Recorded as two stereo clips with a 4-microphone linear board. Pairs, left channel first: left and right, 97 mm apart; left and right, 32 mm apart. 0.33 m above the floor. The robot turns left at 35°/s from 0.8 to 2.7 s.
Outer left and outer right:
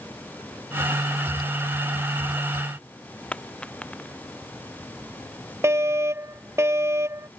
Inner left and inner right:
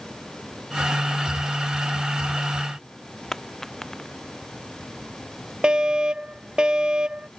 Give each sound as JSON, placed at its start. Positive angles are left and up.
{"t": 3.3, "sound": "a dropped coin", "side_deg": 10}
{"t": 5.6, "sound": "a fire alarm", "side_deg": -25}